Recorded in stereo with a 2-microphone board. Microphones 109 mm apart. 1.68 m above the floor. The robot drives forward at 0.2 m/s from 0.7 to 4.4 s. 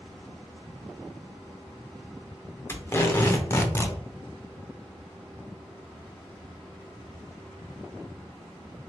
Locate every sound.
2.7 s tape being pulled: 25° left (ahead or behind), 0.9 m